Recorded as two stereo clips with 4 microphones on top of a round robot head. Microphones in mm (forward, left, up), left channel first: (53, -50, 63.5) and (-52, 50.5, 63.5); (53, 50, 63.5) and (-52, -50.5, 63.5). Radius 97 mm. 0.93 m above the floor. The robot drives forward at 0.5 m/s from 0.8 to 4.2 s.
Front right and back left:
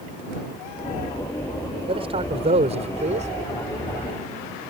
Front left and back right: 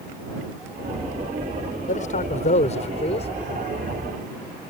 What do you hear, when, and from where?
1.9 s a man speaking: 80° left; by 3.3 s 95° left